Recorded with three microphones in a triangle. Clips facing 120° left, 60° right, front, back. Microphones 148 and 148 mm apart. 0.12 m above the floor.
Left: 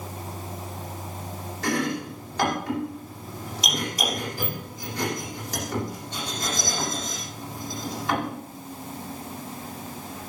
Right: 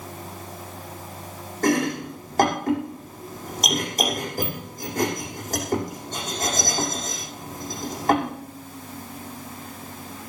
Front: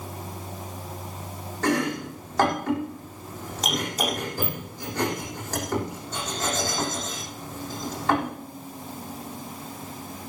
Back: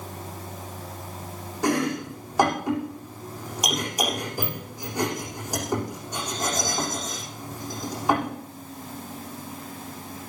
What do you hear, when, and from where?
1.6 s chopping: 100° right, 7.5 m